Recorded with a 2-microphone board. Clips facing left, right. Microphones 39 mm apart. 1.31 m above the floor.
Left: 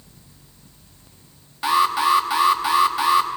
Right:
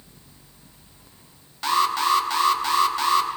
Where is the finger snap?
No finger snap in this recording.